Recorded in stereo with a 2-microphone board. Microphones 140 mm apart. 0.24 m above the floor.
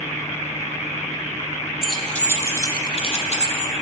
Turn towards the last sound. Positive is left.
turn(degrees=55)  # may be behind; listen again after turning